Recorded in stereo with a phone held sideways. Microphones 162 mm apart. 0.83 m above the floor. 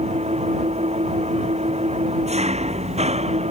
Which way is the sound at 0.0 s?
40° right (ahead or behind).